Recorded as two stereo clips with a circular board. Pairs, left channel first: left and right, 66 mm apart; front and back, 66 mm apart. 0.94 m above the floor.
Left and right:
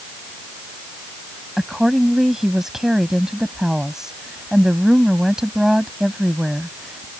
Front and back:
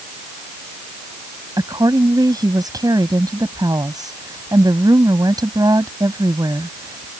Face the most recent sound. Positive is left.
turn(degrees=-170)